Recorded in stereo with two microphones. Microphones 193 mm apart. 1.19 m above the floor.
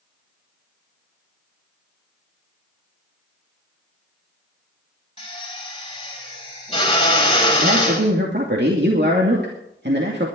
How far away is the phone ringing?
I don't hear a phone ringing.